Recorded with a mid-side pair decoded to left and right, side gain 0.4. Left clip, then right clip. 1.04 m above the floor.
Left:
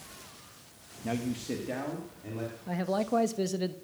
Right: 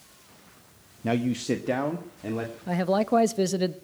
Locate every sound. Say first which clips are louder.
1.0 s a man speaking: right 7 dB; 55° right, 1.0 m; by 2.6 s 70° right, 2.5 m
2.7 s a man speaking: right 6 dB; 50° right, 0.8 m